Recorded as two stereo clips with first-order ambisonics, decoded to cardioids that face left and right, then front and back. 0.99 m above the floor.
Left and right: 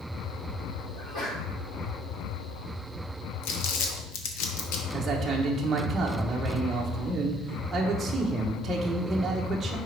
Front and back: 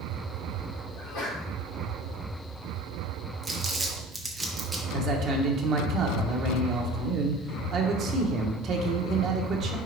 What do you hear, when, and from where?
0.9 s a sneeze: 50° left, 2.5 m
3.4 s crumpling: 100° left, 1.0 m
4.9 s a man speaking: 160° right, 0.8 m